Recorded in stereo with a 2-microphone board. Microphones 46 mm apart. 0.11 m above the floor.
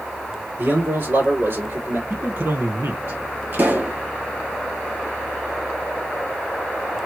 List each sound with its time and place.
0.6 s a man speaking: 55° right (ahead or behind), 3 m; by 2.0 s 65° right (ahead or behind), 3.5 m
2.1 s a man speaking: 60° right (ahead or behind), 2.5 m
3.5 s a pop: 50° right (ahead or behind), 2.0 m